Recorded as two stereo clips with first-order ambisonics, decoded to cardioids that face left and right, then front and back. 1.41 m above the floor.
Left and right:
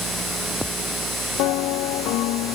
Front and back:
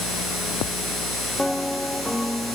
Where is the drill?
I don't hear a drill.